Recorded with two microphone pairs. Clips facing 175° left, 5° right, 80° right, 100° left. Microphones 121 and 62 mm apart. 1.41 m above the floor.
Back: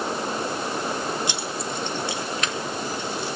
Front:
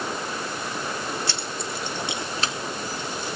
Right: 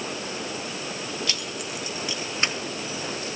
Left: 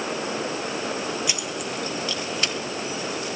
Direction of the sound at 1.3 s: 145° left.